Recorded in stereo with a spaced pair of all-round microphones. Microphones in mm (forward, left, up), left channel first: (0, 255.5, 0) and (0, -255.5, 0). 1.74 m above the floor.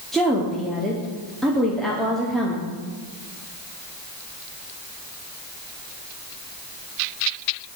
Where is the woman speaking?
Centre (ahead or behind), 1.1 m.